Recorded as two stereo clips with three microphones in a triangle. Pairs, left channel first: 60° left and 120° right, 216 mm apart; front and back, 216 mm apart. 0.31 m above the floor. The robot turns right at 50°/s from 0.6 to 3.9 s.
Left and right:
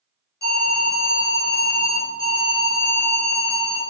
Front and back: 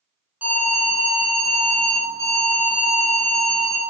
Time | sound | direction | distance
0.4 | an alarm | 95° left | 4 m